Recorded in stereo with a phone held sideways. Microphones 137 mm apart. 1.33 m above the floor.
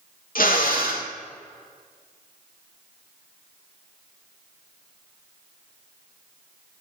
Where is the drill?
80° left, 1.9 m.